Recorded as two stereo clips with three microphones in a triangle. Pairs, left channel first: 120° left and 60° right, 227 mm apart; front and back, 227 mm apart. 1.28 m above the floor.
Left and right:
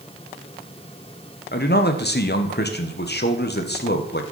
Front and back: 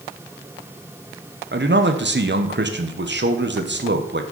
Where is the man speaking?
155° left, 1.0 m.